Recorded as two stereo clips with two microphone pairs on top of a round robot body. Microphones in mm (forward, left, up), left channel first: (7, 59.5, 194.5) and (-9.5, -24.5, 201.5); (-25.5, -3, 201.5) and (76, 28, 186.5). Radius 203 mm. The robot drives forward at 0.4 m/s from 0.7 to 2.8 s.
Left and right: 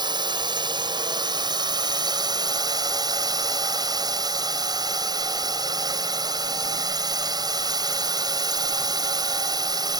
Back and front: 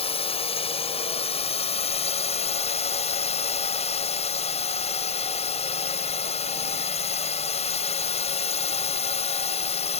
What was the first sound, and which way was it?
A drone, 135° right.